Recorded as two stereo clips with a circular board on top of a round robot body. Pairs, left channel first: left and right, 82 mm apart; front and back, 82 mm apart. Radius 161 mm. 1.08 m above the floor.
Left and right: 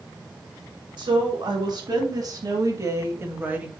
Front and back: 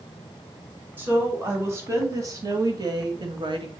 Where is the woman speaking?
115° right, 3 m; by 3.7 s 165° right, 1.7 m.